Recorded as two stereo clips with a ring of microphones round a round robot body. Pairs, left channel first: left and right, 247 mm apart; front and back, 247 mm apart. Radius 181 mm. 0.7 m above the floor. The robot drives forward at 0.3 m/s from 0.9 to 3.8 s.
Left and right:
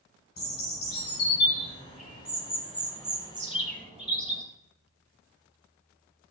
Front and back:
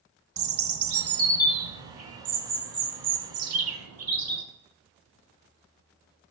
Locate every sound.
0.4 s a bird: 155° left, 1.1 m; by 4.4 s 165° left, 1.9 m